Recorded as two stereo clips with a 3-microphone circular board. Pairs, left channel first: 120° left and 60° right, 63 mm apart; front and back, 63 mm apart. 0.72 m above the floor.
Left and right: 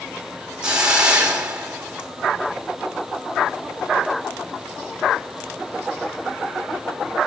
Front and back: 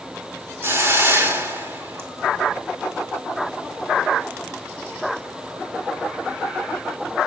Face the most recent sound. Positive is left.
turn(degrees=-130)